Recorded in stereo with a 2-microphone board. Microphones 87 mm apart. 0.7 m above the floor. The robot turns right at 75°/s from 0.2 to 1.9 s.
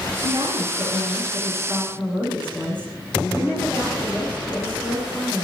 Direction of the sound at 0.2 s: 145° right.